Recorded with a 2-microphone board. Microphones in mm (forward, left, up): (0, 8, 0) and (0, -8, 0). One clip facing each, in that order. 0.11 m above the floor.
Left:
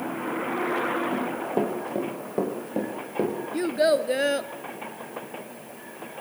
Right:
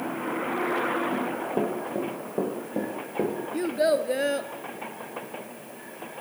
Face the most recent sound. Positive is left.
turn(degrees=15)  # may be behind; listen again after turning